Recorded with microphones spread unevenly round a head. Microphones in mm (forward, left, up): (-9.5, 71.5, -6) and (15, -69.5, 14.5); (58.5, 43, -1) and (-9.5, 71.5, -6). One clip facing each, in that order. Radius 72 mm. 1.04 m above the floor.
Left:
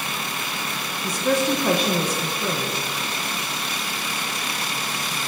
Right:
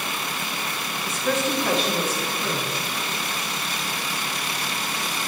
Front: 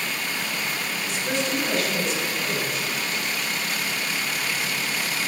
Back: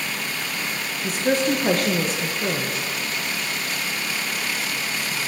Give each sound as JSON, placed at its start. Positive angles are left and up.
{"t": 1.0, "sound": "a woman speaking", "azimuth_deg": 165, "distance_m": 1.0}